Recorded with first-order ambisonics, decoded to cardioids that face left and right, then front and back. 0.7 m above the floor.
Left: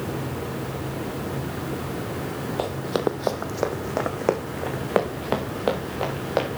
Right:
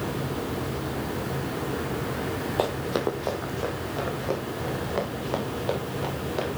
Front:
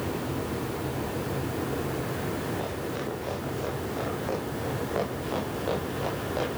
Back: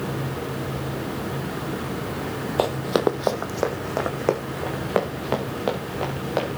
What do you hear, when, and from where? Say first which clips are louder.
2.6 s running footsteps: left 1 dB, back 11 dB; 170° right, 1.2 m; by 6.6 s 120° left, 5.5 m